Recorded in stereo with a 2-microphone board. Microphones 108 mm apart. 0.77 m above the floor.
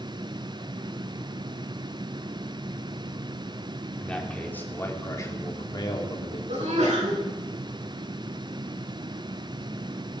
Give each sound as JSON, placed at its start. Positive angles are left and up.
{"t": 4.0, "sound": "a man speaking", "side_deg": 10, "distance_m": 2.5}
{"t": 6.5, "sound": "a sneeze", "side_deg": -85, "distance_m": 8.0}